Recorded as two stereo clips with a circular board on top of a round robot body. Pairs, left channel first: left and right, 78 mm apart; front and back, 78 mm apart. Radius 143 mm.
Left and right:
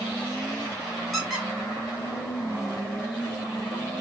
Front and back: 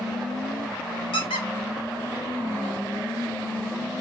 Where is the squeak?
Straight ahead, 0.9 m.